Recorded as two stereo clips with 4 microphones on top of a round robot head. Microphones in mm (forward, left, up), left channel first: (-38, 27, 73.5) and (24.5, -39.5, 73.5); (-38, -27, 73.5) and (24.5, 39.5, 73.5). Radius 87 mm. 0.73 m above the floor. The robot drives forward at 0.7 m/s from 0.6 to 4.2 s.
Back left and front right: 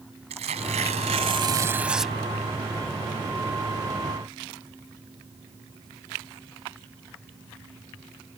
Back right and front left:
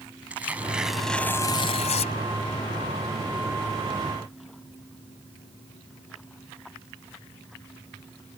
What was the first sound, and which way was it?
Tearing paper, 30° right.